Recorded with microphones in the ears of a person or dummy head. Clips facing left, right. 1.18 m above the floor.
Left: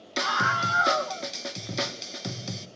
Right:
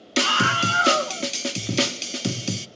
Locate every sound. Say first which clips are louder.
0.2 s a scream: right 6 dB; 40° right (ahead or behind), 1.1 m